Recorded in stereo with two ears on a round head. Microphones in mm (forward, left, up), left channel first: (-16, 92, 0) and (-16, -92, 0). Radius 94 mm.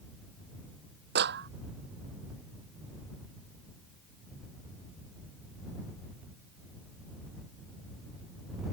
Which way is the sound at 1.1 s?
55° right (ahead or behind).